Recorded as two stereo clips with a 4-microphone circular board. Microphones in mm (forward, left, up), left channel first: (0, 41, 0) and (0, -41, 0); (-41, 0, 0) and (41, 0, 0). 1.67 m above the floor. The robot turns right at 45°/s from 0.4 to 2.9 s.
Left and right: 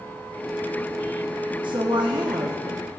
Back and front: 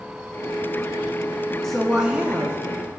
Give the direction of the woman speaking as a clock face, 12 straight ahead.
3 o'clock.